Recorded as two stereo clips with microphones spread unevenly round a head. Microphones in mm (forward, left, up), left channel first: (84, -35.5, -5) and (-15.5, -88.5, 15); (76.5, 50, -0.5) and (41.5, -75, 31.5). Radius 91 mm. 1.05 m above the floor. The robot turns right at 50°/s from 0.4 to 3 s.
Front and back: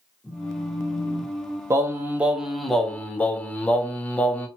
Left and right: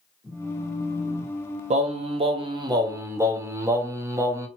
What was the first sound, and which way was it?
A phone buzzing, 80° right.